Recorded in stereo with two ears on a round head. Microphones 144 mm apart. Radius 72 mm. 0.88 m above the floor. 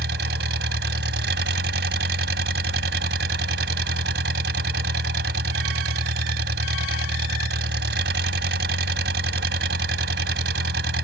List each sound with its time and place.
0.0 s an engine running: 75° right (ahead or behind)